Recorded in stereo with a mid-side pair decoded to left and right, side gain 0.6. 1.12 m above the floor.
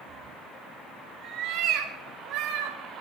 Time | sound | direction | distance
0.1 | a cat meowing | 45° right | 3 m